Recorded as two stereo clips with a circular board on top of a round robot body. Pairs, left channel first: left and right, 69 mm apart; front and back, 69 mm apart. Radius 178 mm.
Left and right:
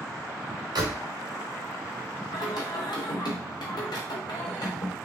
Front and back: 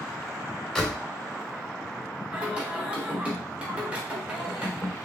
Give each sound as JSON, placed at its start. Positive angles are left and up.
{"t": 0.8, "sound": "a door slam", "azimuth_deg": -85, "distance_m": 1.6}
{"t": 2.3, "sound": "singing", "azimuth_deg": 105, "distance_m": 0.9}